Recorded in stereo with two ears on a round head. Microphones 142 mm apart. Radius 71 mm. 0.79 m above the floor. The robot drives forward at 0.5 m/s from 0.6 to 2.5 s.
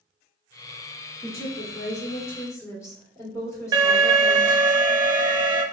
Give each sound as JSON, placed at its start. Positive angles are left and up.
{"t": 1.2, "sound": "a woman speaking", "side_deg": 25, "distance_m": 2.0}
{"t": 3.7, "sound": "an alarm", "side_deg": -30, "distance_m": 0.9}